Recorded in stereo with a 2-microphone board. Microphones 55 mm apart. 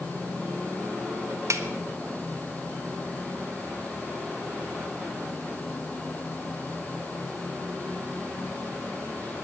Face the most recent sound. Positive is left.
turn(degrees=-70)  # may be behind; listen again after turning